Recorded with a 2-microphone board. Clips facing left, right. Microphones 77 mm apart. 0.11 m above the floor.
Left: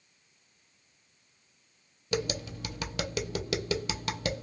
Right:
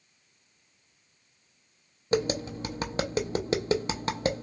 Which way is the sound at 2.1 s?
30° right (ahead or behind).